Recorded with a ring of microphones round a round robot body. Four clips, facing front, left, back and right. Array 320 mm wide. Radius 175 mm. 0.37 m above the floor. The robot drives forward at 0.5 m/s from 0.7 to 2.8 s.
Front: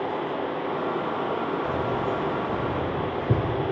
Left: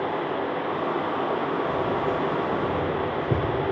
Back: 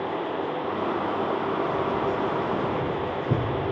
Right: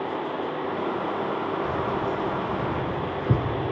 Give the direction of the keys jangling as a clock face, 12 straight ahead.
2 o'clock.